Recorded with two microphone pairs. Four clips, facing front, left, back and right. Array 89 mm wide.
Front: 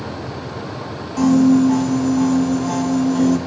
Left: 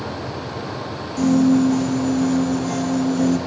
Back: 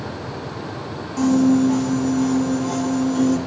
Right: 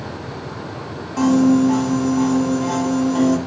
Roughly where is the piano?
Ahead right.